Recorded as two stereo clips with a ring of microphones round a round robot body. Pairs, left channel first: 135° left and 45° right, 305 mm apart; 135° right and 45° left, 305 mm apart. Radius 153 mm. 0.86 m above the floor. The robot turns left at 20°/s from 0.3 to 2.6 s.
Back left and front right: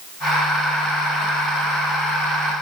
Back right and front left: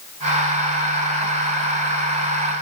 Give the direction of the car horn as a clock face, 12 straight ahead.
No car horn in this recording.